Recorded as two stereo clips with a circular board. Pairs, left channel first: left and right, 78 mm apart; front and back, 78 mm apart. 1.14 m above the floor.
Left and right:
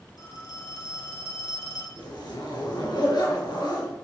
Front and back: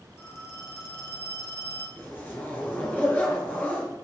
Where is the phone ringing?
55° left, 3.5 m.